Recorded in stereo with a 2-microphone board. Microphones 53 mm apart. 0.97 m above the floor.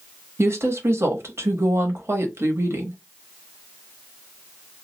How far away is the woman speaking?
About 1.0 m.